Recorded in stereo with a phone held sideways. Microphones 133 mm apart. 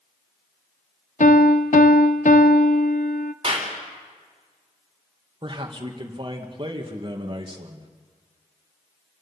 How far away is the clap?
About 4 m.